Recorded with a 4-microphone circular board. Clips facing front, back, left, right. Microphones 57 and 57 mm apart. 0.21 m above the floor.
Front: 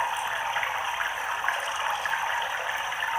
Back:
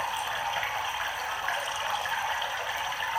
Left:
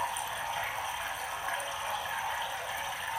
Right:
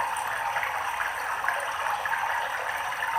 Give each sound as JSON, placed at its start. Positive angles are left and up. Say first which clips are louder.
{"t": 0.0, "sound": "running water", "louder": "front 3 dB, right 6 dB", "azimuth_deg": -65, "distance_m": 1.6}